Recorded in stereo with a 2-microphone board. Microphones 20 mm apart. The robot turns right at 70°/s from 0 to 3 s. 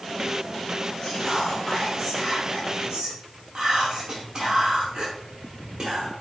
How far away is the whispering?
About 1.1 m.